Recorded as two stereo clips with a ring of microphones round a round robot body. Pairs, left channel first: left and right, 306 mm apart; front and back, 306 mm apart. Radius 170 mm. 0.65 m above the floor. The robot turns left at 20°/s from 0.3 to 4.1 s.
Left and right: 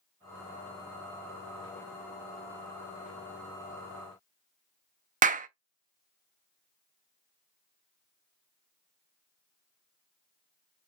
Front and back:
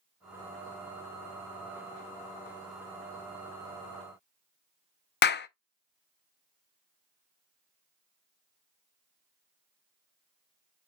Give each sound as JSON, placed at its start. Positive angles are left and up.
{"t": 5.2, "sound": "a clap", "azimuth_deg": -35, "distance_m": 0.6}